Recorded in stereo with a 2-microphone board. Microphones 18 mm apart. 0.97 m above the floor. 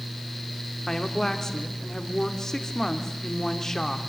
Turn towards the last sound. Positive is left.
turn(degrees=30)  # may be behind; listen again after turning